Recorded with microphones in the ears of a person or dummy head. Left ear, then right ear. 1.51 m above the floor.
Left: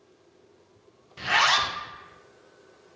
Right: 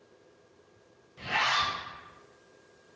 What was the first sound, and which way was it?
A zipper, 75° left (ahead or behind).